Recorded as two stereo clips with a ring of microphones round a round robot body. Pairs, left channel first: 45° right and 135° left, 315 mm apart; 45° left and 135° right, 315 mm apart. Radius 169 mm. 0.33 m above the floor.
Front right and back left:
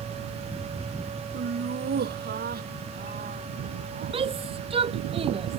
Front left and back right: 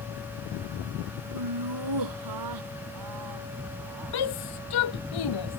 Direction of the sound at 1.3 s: 165° right.